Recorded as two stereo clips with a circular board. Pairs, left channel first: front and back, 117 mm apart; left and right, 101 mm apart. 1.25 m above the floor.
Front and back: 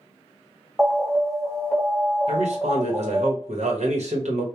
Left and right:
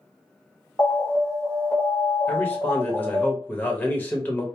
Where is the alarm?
85° left, 1.2 m.